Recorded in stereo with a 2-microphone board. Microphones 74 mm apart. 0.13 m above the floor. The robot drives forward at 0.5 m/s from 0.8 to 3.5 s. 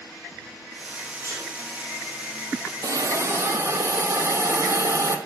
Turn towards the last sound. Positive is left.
turn(degrees=-35)  # may be behind; listen again after turning